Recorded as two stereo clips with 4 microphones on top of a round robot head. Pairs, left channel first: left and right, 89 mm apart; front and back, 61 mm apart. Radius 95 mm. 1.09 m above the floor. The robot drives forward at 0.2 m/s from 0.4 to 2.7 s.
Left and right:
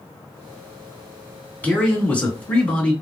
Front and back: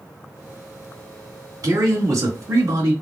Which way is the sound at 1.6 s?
165° left.